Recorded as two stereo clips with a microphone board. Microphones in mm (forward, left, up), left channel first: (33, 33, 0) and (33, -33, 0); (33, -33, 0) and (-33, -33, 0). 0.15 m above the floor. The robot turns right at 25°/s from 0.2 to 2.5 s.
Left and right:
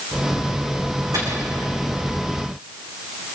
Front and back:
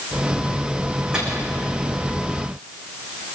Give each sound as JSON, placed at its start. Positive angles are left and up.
{"t": 1.1, "sound": "a microwave", "azimuth_deg": -105, "distance_m": 8.0}